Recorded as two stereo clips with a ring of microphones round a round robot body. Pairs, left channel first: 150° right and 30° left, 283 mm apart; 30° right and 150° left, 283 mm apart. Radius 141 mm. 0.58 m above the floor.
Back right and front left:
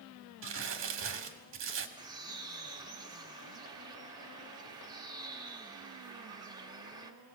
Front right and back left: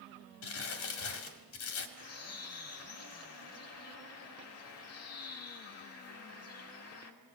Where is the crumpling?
5° right, 2.0 m.